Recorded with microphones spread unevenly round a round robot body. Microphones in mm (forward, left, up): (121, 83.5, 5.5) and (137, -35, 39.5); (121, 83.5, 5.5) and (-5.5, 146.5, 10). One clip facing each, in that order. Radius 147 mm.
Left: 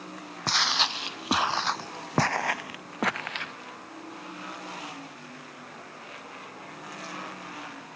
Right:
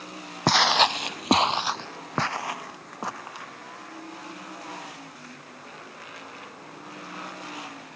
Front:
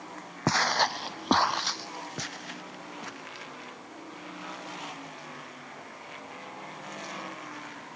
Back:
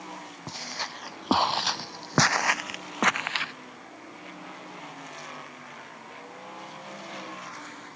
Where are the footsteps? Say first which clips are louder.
Right 9 dB, front 14 dB; 65° right; by 3.5 s 160° left.